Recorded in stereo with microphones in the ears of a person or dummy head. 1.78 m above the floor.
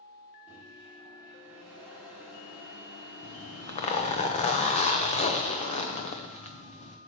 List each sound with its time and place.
0.5 s a microwave: 10° right (ahead or behind), 3 m
3.2 s a zipper: 35° left (ahead or behind), 0.8 m